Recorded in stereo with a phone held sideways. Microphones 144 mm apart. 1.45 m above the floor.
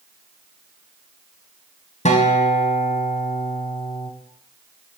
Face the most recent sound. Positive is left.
turn(degrees=50)  # may be behind; listen again after turning